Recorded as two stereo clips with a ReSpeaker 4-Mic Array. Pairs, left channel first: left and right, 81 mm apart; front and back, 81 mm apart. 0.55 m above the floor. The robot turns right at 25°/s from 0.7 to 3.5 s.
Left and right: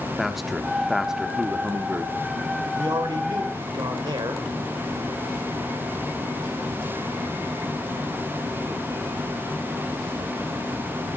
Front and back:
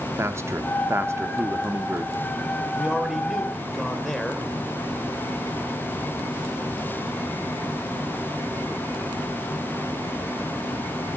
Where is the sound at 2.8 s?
105° right, 2.5 m; by 4.5 s 85° right, 2.5 m.